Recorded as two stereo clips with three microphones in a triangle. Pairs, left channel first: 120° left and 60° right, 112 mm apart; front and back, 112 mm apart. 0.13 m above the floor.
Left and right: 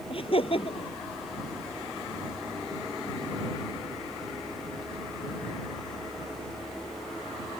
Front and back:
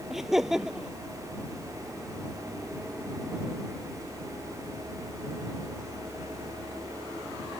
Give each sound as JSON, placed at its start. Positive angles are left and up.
{"t": 0.1, "sound": "laughter", "azimuth_deg": 95}